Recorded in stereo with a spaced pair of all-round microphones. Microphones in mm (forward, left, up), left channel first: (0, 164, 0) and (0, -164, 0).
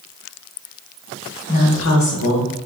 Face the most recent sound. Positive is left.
turn(degrees=80)